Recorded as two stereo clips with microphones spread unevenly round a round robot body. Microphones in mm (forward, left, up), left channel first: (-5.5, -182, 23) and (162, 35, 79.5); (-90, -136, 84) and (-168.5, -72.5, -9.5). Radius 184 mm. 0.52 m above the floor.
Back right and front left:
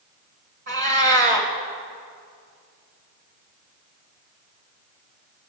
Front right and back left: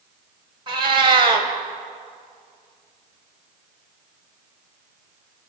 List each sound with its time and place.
0.7 s a cat meowing: 125° left, 1.3 m